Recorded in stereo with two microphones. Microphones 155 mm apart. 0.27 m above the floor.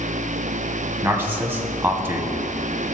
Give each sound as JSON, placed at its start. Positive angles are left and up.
{"t": 1.0, "sound": "a man speaking", "side_deg": -15, "distance_m": 1.5}